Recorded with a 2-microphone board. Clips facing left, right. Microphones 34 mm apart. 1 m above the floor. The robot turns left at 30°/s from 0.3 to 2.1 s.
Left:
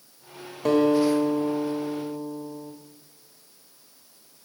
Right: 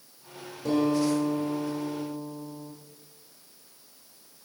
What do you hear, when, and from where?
0.7 s a guitar: 70° left, 1.1 m; by 2.7 s 25° left, 1.1 m